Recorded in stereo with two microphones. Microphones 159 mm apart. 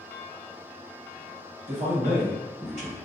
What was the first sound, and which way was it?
A man speaking, 50° right (ahead or behind).